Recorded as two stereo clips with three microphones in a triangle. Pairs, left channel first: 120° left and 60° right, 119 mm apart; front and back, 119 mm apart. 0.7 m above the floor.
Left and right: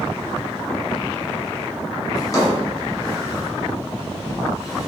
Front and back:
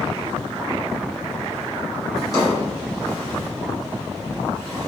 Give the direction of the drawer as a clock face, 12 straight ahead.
10 o'clock.